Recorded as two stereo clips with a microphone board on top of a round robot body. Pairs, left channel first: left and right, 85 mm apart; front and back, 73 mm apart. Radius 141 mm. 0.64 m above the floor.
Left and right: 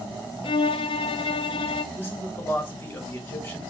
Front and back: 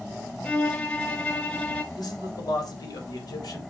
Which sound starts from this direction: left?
A violin, at 0.4 s.